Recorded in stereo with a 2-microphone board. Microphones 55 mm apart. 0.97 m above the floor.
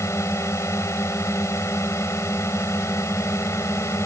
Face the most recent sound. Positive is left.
turn(degrees=55)  # may be behind; listen again after turning